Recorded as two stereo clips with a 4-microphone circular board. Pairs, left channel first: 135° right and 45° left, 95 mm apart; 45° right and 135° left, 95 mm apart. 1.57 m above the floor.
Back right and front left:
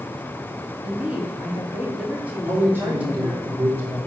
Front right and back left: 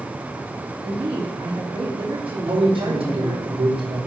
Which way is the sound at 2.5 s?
115° left.